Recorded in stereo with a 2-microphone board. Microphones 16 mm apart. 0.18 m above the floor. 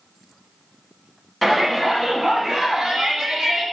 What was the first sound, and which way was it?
A shout, 5° right (ahead or behind).